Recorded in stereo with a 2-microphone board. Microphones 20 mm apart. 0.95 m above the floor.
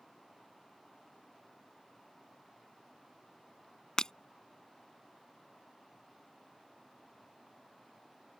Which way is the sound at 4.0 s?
35° left (ahead or behind).